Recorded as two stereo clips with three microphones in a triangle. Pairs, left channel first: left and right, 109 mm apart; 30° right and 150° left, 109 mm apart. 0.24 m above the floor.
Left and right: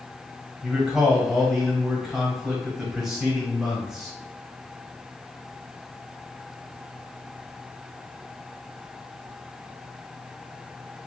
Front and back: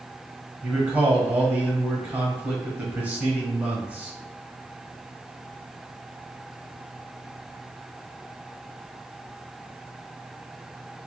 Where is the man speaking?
170° right, 1.2 m.